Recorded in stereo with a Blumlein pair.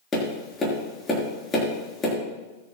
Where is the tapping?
20° left, 5.5 m.